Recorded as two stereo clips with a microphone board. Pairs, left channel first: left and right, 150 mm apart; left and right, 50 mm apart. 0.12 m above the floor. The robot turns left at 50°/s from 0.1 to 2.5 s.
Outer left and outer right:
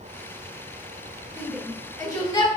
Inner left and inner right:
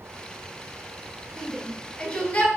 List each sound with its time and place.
1.4 s a shout: centre (ahead or behind), 1.7 m; by 2.5 s 35° left (ahead or behind), 1.7 m